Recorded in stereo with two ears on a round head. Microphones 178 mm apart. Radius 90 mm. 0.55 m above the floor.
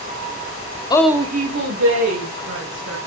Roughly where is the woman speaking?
Left.